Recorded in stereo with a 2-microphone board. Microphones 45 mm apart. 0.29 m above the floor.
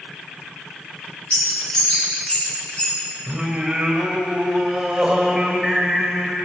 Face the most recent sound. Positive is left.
turn(degrees=-15)  # may be behind; listen again after turning